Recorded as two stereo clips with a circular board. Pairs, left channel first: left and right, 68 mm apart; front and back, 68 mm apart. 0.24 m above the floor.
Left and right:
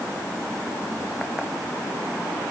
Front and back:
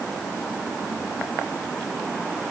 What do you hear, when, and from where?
Only background noise.